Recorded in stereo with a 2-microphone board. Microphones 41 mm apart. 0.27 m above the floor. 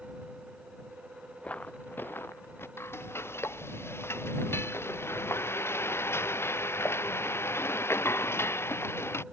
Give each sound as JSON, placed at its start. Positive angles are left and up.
{"t": 1.4, "sound": "footsteps", "side_deg": 35}
{"t": 2.8, "sound": "frying", "side_deg": 85}